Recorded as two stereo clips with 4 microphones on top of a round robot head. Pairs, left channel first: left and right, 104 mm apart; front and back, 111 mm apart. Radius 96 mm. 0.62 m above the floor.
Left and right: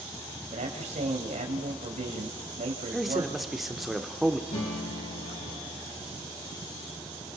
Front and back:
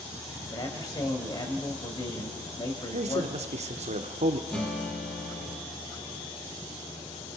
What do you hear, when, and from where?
0.5 s a man speaking: 65° right, 3.5 m
2.9 s a man speaking: straight behind, 1.5 m
4.5 s a guitar: 80° left, 9 m